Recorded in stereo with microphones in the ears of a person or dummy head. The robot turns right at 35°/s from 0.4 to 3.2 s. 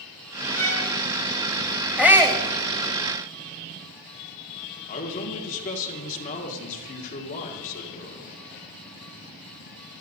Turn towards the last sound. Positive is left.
turn(degrees=40)  # may be behind; listen again after turning